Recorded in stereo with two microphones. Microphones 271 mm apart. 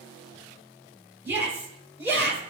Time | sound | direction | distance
1.2 | a shout | 10° right (ahead or behind) | 4.5 m